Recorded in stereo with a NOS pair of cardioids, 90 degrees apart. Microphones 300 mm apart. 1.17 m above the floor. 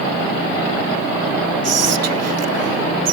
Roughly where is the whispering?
Ahead right.